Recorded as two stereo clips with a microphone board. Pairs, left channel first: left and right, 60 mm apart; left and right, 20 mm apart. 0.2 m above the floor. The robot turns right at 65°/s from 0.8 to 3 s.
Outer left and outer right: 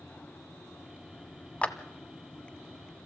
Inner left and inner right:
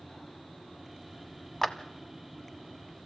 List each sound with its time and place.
1.6 s a clap: 20° left (ahead or behind), 1.0 m; by 1.8 s 25° left (ahead or behind), 1.0 m